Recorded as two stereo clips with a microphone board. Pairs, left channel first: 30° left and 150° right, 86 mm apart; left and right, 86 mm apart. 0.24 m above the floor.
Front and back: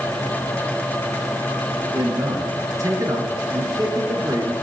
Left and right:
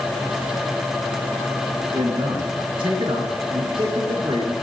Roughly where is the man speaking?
Right.